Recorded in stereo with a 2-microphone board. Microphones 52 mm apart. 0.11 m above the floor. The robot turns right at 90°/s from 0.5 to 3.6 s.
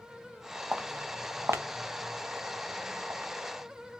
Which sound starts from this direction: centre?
Footsteps, at 0.7 s.